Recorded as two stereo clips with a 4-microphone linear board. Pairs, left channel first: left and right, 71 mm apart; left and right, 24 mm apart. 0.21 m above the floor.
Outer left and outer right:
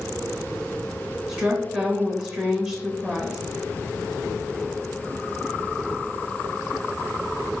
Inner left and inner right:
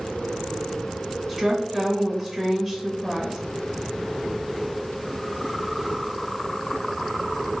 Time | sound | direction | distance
1.3 | a woman speaking | 15° right (ahead or behind) | 1.0 m